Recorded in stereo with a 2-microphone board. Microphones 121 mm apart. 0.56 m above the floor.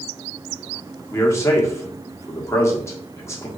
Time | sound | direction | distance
1.1 | a man speaking | 25° left (ahead or behind) | 1.3 m